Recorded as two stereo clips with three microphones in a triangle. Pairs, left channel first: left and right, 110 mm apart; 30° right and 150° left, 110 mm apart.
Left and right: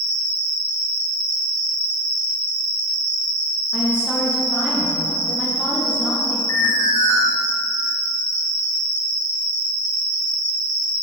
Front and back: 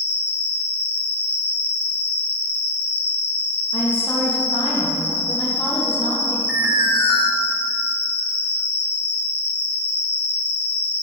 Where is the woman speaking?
10° left, 1.8 m.